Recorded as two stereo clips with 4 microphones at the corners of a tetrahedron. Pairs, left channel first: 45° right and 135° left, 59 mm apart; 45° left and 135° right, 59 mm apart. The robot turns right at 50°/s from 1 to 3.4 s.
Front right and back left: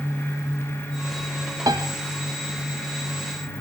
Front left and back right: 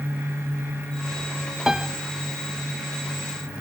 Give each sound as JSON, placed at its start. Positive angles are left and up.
{"t": 1.7, "sound": "a piano", "azimuth_deg": 140, "distance_m": 1.1}